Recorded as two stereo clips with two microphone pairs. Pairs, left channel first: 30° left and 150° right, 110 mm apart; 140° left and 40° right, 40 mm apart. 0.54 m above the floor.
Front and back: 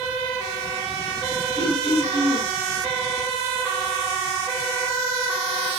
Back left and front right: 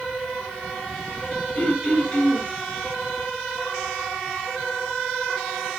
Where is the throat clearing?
175° left, 2 m.